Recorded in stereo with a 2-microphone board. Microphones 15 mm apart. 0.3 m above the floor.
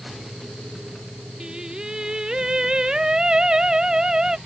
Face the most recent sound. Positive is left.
turn(degrees=-45)  # may be behind; listen again after turning